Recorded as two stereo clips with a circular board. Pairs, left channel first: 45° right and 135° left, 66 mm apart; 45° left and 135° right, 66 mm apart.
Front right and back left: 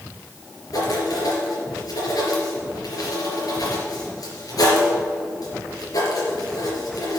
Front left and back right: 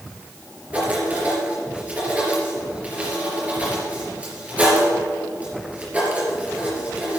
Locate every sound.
0.7 s writing: 65° right, 4 m